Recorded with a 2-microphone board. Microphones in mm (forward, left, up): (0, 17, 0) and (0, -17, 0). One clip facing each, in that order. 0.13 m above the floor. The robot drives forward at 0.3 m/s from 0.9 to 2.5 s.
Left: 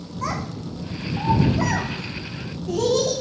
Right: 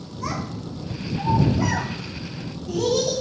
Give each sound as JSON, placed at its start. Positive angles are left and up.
{"t": 0.2, "sound": "a child speaking", "side_deg": 70, "distance_m": 5.0}